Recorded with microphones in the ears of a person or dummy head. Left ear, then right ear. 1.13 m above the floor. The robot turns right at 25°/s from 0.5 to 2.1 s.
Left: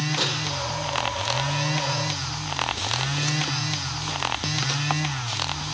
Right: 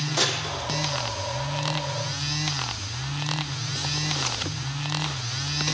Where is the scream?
I don't hear a scream.